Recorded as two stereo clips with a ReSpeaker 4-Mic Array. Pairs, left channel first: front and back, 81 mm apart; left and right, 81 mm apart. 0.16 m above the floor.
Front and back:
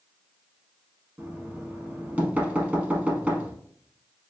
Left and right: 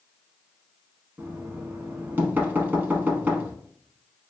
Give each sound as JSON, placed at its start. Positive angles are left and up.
{"t": 1.2, "sound": "knocking", "azimuth_deg": -130, "distance_m": 0.8}